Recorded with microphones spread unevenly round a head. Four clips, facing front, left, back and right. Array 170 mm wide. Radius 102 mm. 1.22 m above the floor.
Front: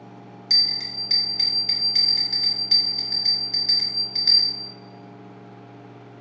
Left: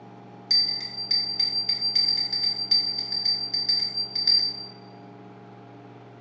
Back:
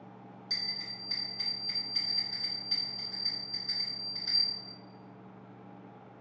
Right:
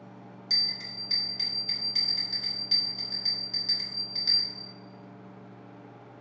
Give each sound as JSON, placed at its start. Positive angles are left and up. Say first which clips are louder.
{"t": 0.5, "sound": "a bell", "louder": "left 3 dB, front 10 dB", "azimuth_deg": 15, "distance_m": 1.6}